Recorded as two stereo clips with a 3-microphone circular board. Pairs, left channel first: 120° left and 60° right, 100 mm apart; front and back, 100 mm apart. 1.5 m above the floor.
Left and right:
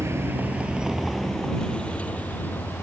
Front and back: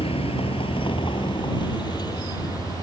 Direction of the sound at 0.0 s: Straight ahead.